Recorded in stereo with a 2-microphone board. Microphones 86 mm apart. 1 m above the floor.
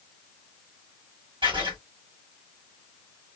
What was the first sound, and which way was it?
Writing, 75° right (ahead or behind).